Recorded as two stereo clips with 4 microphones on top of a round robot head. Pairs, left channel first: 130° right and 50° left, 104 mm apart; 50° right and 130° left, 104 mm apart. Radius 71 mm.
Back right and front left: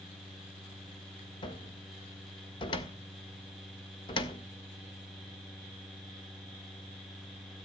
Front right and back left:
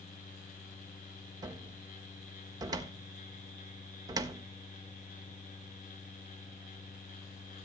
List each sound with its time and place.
1.4 s a cupboard door: 175° right, 1.4 m